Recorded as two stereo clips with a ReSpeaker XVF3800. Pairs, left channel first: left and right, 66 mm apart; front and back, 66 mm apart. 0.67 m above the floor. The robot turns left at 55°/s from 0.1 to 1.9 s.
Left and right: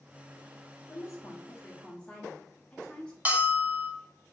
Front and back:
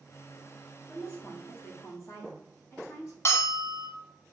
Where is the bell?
30° right, 0.7 m.